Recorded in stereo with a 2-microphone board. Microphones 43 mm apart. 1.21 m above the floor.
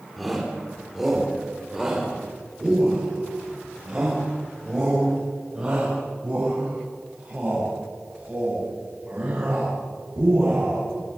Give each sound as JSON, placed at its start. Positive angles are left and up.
{"t": 0.2, "sound": "a shout", "side_deg": 0, "distance_m": 3.5}